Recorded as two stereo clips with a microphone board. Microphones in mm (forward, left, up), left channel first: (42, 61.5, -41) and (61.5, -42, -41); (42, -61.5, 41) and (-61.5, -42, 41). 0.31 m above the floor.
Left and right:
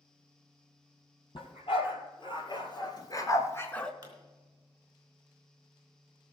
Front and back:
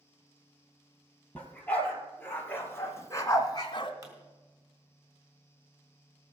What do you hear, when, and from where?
1.4 s a dog barking: 70° left, 4 m; by 3.9 s 20° left, 1.3 m
4.0 s a pop: 135° right, 3.5 m